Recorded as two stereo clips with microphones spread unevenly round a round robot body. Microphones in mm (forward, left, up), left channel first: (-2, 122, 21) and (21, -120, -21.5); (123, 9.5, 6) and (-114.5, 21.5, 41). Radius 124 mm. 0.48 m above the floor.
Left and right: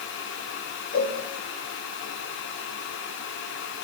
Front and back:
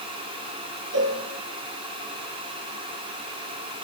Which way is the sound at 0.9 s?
150° left.